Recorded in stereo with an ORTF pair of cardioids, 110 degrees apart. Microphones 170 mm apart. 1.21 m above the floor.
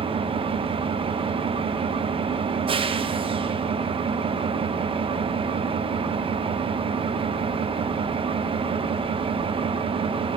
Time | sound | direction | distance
0.0 | an engine running | 30° right | 0.7 m